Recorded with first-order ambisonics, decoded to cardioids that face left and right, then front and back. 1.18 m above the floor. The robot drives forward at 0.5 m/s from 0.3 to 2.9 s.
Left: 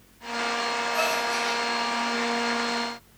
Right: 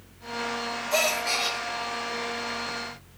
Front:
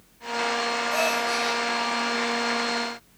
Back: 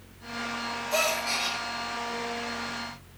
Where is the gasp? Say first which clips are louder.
Right 4 dB, even; 110° right, 4.5 m.